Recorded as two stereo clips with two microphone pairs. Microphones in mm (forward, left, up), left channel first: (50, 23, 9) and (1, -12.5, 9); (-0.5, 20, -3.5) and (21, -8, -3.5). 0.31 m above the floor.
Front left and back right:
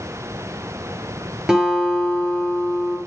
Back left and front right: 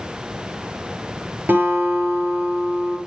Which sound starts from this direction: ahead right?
A guitar, at 1.5 s.